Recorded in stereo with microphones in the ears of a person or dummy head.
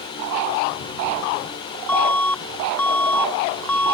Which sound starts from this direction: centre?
An alarm, at 1.9 s.